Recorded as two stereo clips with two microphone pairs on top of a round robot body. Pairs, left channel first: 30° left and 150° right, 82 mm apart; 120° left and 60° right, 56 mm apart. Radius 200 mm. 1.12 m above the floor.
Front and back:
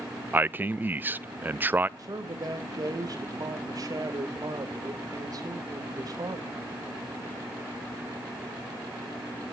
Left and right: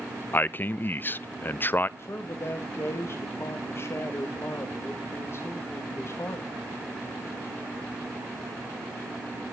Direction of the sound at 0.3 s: 160° left.